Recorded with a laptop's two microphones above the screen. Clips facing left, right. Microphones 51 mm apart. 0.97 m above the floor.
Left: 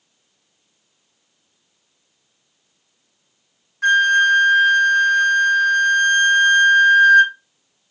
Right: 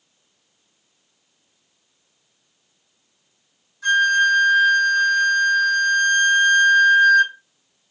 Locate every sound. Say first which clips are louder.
3.8 s a flute: left 3 dB; 55° left (ahead or behind), 1.3 m